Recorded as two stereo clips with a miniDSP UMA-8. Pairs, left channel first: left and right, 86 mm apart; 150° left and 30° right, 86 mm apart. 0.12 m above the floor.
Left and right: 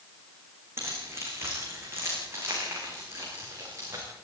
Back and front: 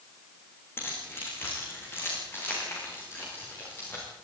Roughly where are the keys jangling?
Behind right.